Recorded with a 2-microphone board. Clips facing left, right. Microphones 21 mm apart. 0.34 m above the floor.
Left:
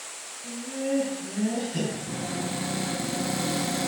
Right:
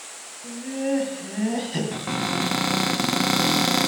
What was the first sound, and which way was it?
Laughter, 45° right (ahead or behind).